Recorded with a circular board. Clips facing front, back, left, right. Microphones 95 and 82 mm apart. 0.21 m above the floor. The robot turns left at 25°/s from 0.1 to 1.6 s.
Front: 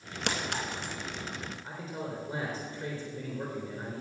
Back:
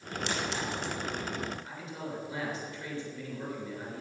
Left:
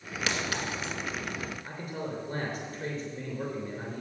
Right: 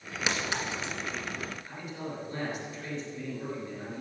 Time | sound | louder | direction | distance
0.3 | a clink | front 1 dB, even | 15° right | 1.9 m
1.6 | a man speaking | front 2 dB, left 2 dB | 65° left | 3.5 m